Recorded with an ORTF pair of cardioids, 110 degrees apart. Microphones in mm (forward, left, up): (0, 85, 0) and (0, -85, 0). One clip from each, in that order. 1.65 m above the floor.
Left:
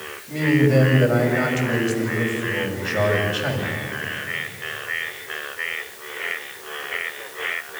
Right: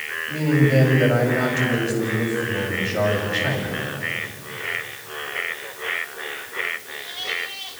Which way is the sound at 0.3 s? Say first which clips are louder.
Left 2 dB; 10° left.